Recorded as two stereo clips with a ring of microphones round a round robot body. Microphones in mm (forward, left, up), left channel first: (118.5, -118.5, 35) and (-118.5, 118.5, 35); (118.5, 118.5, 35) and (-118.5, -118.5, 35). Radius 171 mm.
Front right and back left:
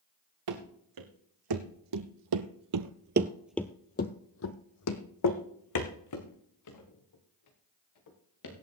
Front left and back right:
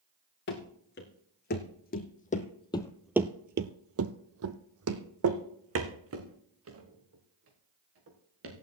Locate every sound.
0.5 s running footsteps: 105° left, 2.5 m; by 8.5 s 80° right, 4 m